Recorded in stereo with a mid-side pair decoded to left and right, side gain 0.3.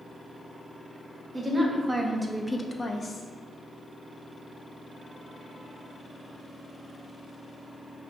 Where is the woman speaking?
35° right, 1.0 m; by 3.2 s 65° left, 0.6 m.